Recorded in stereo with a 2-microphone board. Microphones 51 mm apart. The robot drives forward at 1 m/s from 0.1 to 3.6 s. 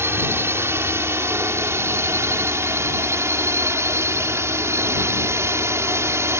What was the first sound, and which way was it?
A drone, 55° right (ahead or behind).